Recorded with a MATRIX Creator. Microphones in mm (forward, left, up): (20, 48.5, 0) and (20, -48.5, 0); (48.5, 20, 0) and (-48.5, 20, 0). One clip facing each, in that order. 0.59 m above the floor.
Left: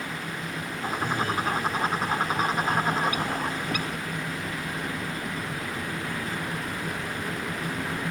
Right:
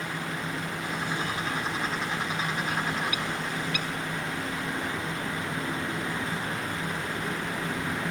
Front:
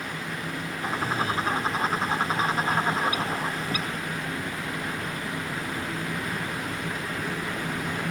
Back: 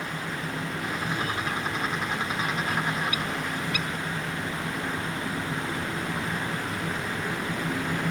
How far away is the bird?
About 1.1 m.